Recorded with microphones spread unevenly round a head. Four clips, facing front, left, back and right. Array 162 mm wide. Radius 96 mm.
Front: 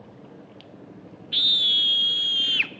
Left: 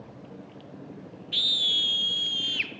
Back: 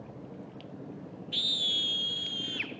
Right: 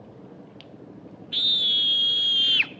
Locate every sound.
1.3 s a scream: 5° right, 1.9 m; by 2.7 s 40° right, 1.6 m